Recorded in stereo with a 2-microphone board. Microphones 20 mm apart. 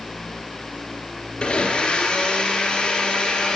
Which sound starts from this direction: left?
A blender, at 1.4 s.